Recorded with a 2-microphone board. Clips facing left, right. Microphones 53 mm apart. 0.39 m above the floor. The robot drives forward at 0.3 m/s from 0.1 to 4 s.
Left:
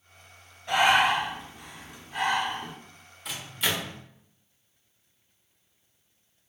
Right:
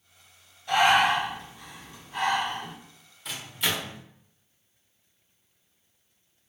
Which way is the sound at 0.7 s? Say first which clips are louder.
Right 1 dB; 25° left (ahead or behind).